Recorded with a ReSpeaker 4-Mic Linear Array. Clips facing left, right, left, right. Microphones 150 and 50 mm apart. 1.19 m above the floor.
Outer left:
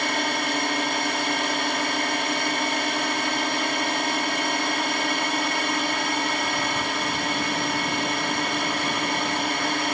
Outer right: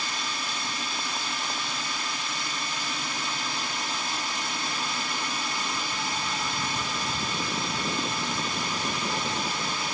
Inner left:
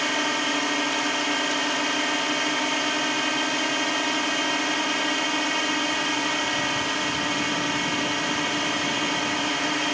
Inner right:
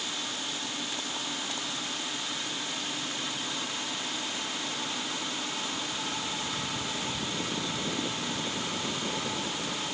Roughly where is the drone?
Left.